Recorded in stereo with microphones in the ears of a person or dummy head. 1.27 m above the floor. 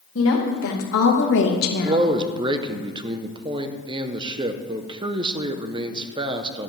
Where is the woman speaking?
60° left (ahead or behind), 1.9 m; by 2.1 s 50° left (ahead or behind), 1.7 m.